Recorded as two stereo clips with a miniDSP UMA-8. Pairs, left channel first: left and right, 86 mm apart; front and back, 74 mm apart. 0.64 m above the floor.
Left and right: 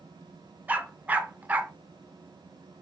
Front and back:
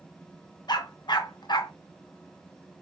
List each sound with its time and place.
0.7 s a dog barking: 20° right, 0.6 m